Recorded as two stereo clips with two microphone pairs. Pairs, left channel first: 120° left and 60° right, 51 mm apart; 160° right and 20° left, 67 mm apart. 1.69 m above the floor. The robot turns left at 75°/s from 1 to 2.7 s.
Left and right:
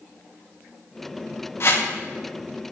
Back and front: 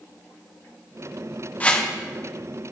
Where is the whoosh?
140° left, 1.1 m; by 1.9 s 120° left, 1.1 m.